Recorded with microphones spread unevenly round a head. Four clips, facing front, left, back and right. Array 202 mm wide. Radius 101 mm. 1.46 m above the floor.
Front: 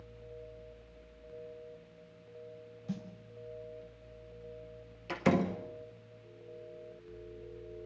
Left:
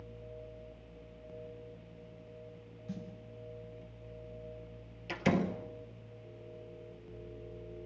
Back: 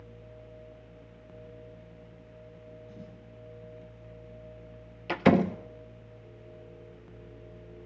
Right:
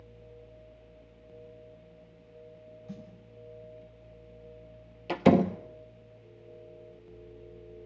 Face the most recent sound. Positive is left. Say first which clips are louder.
# right 9 dB, back 6 dB
turn(degrees=-120)